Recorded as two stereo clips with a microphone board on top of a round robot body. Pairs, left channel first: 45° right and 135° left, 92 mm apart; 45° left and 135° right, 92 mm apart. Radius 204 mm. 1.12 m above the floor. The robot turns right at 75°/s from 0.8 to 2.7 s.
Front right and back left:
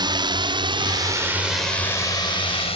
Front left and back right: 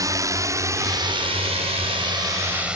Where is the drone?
175° left; by 2.8 s 55° right.